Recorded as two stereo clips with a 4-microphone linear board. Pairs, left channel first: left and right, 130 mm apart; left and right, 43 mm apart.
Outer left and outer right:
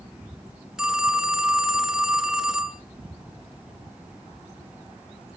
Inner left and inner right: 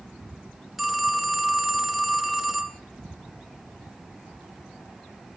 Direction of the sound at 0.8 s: 5° right (ahead or behind).